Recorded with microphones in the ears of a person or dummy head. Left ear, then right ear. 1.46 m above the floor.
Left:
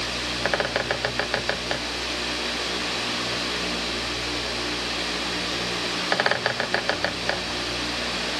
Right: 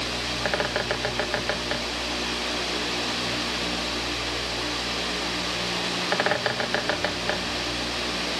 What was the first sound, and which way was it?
A bird, 20° left (ahead or behind).